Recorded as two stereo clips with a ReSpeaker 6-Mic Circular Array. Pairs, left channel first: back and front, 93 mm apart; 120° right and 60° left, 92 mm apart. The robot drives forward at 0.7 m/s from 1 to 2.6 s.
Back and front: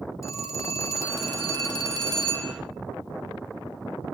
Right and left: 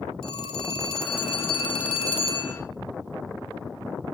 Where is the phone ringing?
120° right, 3.5 m; by 2.5 s 135° right, 4 m.